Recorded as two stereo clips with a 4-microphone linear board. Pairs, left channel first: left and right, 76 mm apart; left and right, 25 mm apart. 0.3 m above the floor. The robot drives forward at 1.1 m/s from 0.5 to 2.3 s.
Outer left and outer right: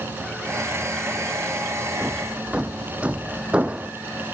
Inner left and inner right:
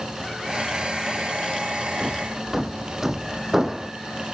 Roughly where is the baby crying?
No baby crying in this recording.